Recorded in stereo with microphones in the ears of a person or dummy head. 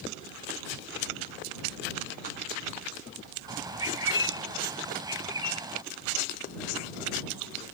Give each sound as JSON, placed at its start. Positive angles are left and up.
{"t": 3.5, "sound": "a bird", "side_deg": -20}